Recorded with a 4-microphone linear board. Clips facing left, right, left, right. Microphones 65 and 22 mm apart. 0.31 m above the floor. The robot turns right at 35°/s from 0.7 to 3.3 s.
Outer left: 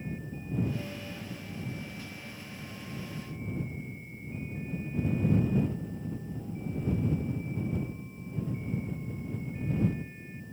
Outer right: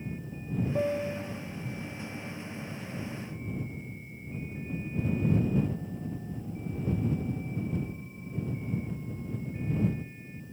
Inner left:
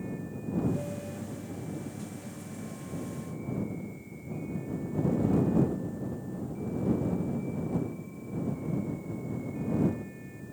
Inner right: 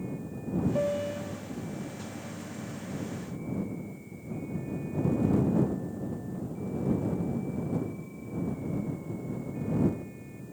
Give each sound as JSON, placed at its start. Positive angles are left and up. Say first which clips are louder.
{"t": 0.8, "sound": "a piano", "louder": "outer right 10 dB, inner right 7 dB", "side_deg": -60}